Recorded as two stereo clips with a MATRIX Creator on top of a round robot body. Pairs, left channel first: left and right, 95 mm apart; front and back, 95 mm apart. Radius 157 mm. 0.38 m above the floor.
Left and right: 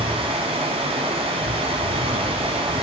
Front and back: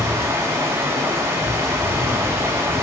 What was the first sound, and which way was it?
Running water, 115° right.